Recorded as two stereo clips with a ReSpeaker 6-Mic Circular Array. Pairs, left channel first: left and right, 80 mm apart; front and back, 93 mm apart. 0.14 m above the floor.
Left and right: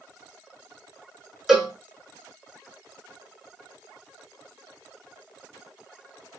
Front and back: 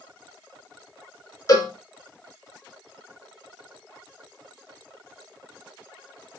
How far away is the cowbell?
About 0.9 m.